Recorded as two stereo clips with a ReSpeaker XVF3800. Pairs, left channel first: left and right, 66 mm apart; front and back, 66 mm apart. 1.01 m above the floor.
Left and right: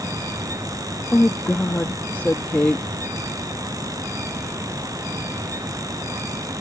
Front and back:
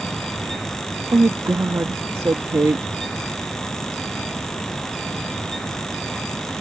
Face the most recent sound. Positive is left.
turn(degrees=150)